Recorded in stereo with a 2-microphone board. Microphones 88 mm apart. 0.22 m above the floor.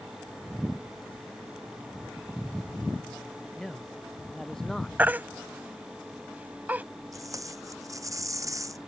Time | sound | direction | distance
3.6 | a man speaking | 5° left (ahead or behind) | ?
5.0 | a baby crying | 20° right (ahead or behind) | ?
7.1 | tape being pulled | 40° right (ahead or behind) | ?